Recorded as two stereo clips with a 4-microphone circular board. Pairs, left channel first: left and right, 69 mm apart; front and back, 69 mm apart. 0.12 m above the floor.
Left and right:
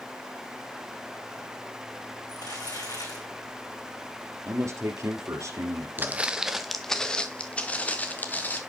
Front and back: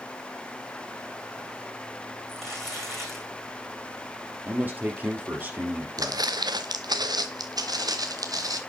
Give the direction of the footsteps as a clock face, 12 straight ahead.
5 o'clock.